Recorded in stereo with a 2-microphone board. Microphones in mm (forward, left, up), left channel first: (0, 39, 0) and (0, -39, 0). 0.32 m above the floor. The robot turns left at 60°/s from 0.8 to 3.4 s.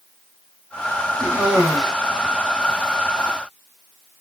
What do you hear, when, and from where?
1.2 s a cough: 150° right, 2.5 m; by 1.9 s 165° left, 2.5 m